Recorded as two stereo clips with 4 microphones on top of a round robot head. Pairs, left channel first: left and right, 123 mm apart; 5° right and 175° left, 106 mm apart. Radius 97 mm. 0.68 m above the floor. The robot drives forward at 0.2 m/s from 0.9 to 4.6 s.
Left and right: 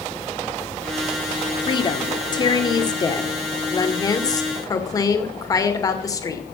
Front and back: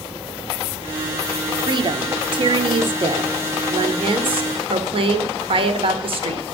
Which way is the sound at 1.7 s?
135° left.